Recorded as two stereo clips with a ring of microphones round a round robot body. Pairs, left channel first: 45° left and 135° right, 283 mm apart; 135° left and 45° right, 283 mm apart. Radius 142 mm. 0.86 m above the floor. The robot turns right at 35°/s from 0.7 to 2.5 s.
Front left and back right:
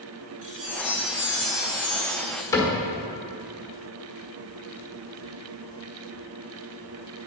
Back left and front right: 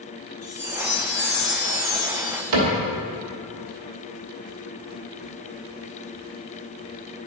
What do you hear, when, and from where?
0.4 s a chime: 120° left, 2.5 m; by 2.4 s straight behind, 2.5 m
2.5 s a cupboard door: 35° right, 1.5 m